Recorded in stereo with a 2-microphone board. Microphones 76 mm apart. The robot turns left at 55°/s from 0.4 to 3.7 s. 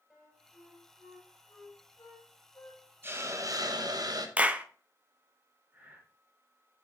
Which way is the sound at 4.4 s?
20° right (ahead or behind).